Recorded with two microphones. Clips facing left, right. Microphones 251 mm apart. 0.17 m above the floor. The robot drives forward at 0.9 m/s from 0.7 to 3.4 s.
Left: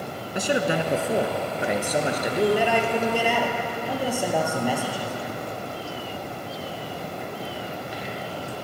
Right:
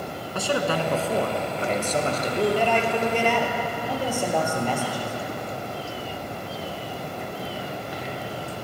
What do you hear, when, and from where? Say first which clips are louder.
0.3 s a man speaking: left 1 dB; 20° left (ahead or behind), 1.8 m; by 5.1 s 10° left (ahead or behind), 4 m